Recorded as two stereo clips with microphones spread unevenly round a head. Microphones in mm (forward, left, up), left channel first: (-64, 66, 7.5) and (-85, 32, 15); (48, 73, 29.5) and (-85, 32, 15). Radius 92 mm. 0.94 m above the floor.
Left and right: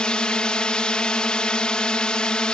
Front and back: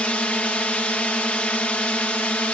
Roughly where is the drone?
Left.